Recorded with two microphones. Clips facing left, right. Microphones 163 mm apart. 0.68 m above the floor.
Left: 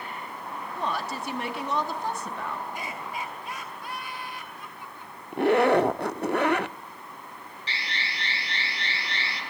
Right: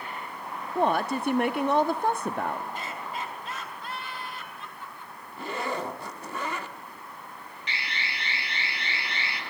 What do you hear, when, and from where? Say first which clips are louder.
0.8 s a woman speaking: right 7 dB; 55° right (ahead or behind), 0.8 m
2.7 s laughter: even; 15° left (ahead or behind), 5.5 m
5.3 s a zipper: left 13 dB; 70° left (ahead or behind), 0.6 m
7.7 s an alarm: even; 35° left (ahead or behind), 5.5 m